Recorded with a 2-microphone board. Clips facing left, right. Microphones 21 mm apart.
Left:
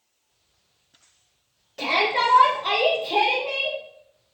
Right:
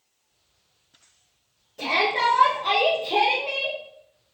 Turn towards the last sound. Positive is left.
turn(degrees=-30)  # may be behind; listen again after turning